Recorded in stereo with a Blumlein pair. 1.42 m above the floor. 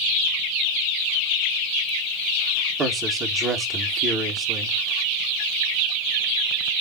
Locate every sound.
2.8 s a man speaking: 25° right, 2.5 m